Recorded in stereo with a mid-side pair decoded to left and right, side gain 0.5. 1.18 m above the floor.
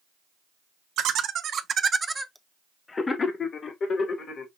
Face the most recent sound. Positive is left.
turn(degrees=60)